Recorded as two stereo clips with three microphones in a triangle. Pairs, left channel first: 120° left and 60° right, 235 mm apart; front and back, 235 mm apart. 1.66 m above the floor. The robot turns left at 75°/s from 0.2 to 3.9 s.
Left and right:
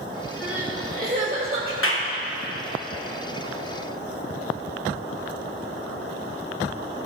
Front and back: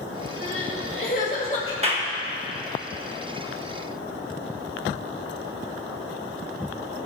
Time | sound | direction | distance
0.4 | crying | 30° left | 2.5 m
1.8 | a clap | 125° left | 1.2 m